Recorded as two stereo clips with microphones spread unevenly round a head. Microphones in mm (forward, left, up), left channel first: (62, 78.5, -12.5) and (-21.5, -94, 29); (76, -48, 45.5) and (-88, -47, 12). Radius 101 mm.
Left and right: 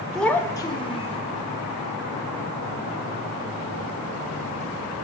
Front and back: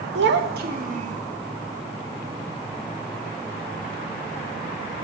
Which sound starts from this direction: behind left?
A child speaking, at 0.1 s.